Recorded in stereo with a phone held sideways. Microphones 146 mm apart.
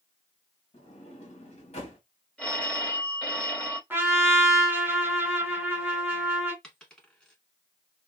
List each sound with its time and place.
0.7 s a sliding door: 50° left (ahead or behind), 1.6 m
2.4 s a phone ringing: 5° left (ahead or behind), 1.9 m
3.9 s a trumpet: 15° right (ahead or behind), 1.0 m
6.6 s a dropped coin: 5° left (ahead or behind), 1.2 m